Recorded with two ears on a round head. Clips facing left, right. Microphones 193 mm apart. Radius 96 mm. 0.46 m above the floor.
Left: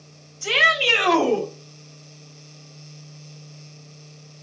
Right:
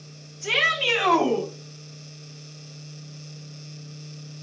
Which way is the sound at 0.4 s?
60° left (ahead or behind).